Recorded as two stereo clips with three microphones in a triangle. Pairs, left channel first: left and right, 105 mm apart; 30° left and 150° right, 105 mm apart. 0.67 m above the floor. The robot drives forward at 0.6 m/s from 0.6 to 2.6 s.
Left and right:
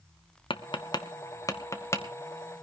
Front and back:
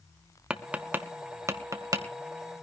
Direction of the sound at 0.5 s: 130° left.